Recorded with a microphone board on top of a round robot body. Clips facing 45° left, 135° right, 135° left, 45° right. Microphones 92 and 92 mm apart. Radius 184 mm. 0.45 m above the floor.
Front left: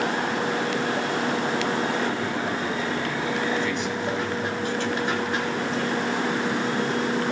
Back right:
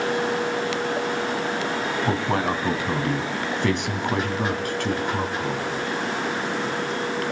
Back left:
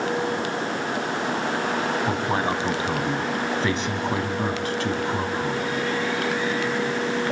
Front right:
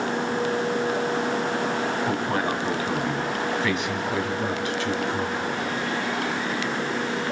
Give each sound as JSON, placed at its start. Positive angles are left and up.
{"t": 2.0, "sound": "a man speaking", "azimuth_deg": -150, "distance_m": 4.0}